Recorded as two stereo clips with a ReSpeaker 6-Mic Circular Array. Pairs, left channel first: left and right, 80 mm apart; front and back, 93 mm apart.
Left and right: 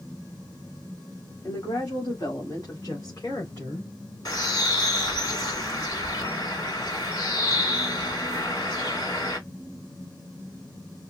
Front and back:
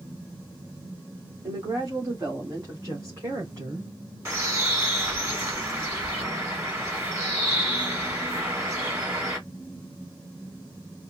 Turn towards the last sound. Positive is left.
turn(degrees=125)